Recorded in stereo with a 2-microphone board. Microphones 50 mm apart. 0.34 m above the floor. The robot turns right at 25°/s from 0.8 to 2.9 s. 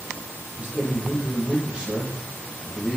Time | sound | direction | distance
0.6 | a man speaking | 55° right | 1.3 m